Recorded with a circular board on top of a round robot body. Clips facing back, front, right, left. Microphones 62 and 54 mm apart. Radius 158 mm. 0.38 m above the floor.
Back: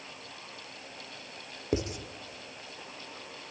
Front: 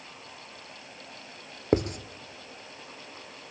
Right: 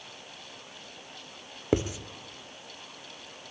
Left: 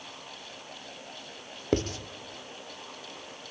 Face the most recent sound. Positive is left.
turn(degrees=-15)